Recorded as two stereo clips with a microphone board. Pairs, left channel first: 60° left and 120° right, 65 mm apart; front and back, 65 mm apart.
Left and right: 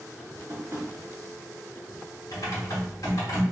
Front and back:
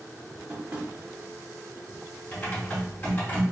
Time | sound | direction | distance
0.5 | tapping | 150° right | 1.4 m
2.3 | typing on a keyboard | 60° left | 1.0 m